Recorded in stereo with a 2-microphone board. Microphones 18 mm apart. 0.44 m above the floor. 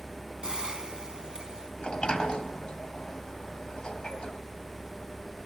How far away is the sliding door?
About 2.5 m.